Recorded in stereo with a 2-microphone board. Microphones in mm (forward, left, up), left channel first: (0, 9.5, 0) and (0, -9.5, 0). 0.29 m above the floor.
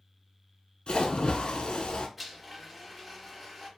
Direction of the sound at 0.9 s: 60° left (ahead or behind).